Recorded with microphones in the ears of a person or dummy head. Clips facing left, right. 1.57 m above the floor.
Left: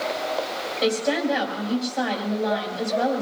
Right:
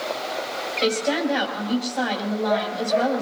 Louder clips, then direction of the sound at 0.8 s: Even; centre (ahead or behind).